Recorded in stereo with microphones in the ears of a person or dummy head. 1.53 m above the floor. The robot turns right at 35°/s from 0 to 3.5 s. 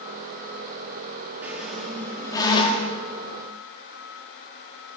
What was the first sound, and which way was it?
A squeak, 10° right.